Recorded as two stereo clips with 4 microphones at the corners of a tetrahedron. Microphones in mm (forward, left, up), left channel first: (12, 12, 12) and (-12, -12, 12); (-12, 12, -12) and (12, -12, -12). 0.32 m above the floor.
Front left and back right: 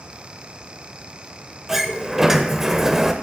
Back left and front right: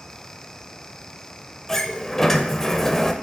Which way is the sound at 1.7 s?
Straight behind.